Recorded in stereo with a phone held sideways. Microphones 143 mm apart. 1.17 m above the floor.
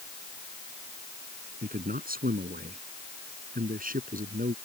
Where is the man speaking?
90° right; by 4.5 s 70° right (ahead or behind).